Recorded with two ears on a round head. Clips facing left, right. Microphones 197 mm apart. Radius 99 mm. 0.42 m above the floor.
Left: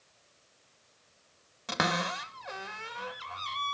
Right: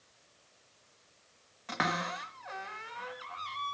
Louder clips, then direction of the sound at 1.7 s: Left 3 dB; 55° left (ahead or behind).